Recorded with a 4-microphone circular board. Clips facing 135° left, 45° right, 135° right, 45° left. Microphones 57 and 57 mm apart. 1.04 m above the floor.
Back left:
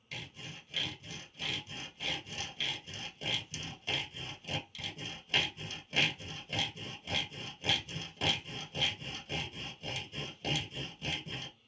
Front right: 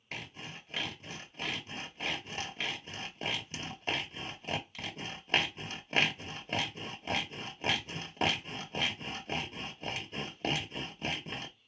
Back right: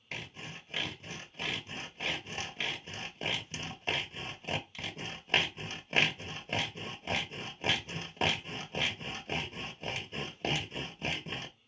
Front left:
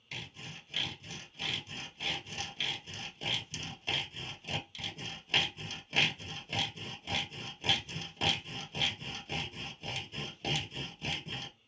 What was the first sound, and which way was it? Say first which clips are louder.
Sawing: front right 2 dB, back right 2 dB; 85° right.